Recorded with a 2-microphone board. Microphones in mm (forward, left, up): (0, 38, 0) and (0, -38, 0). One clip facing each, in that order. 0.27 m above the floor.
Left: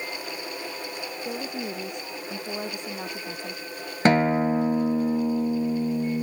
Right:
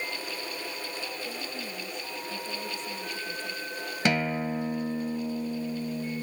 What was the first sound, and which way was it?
A woman speaking, 65° left (ahead or behind).